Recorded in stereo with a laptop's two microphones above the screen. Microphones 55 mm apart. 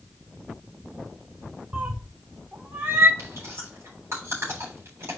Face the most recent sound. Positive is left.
turn(degrees=-55)  # may be behind; listen again after turning